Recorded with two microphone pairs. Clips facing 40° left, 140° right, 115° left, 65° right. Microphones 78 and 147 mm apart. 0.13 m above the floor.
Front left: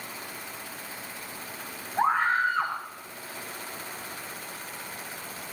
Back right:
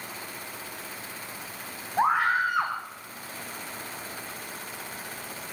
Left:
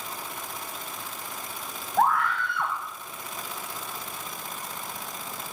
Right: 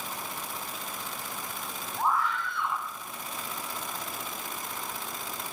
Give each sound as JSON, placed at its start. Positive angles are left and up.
{"t": 2.0, "sound": "a scream", "azimuth_deg": 140, "distance_m": 6.0}